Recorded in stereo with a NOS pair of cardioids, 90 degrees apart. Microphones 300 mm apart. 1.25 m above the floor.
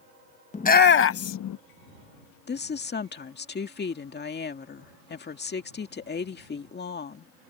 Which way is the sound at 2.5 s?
35° left.